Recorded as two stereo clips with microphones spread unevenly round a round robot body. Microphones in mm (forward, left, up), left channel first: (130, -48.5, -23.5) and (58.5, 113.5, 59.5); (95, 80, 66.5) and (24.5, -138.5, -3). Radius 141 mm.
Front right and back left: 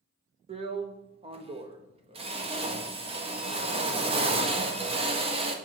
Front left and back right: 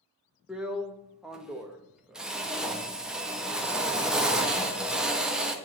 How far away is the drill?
About 1.2 m.